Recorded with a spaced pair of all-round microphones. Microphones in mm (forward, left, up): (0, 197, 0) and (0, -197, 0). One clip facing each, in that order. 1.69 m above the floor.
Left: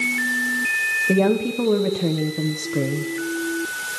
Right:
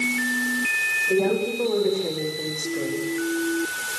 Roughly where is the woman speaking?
Left.